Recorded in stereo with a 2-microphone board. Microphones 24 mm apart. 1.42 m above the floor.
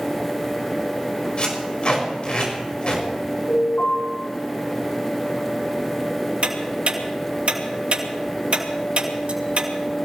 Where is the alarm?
85° left, 10 m.